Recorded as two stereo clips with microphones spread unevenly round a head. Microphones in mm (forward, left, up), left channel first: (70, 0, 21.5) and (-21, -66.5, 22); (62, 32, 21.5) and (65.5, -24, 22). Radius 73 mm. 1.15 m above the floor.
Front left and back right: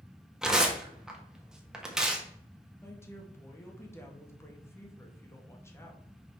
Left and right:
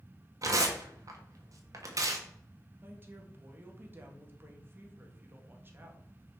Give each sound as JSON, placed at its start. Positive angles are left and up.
{"t": 0.4, "sound": "tearing paper", "azimuth_deg": -60, "distance_m": 1.5}
{"t": 2.8, "sound": "a woman speaking", "azimuth_deg": -35, "distance_m": 1.8}